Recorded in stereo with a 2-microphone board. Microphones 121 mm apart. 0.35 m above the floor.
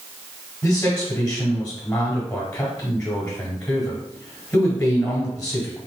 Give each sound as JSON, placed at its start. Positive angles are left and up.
{"t": 0.6, "sound": "a man speaking", "side_deg": 10, "distance_m": 1.7}